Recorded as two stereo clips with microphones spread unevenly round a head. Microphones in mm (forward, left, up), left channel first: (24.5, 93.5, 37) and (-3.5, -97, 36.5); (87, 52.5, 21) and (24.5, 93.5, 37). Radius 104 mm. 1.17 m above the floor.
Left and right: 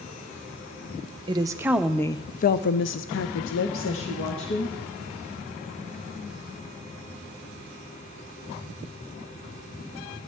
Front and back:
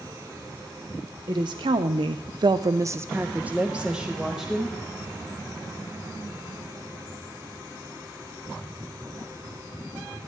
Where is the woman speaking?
165° right, 0.9 m; by 4.8 s 60° left, 1.8 m.